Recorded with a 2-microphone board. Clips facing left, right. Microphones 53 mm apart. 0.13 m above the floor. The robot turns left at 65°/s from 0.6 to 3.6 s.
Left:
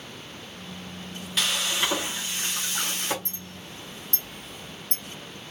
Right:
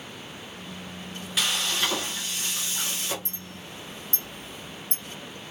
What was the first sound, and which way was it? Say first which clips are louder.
Frying: even; 175° right.